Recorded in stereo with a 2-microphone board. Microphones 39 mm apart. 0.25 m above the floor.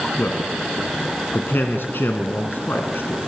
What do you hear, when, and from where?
0.2 s a man speaking: 65° left (ahead or behind), 2 m